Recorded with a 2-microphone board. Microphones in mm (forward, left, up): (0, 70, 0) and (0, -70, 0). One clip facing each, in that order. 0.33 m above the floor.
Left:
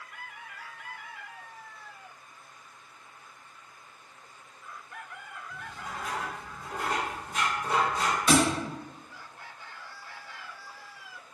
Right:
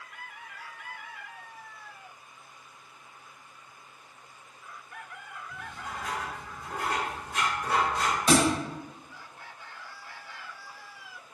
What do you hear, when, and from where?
5.5 s writing: 80° right, 1.2 m
8.3 s a thud: 30° right (ahead or behind), 0.5 m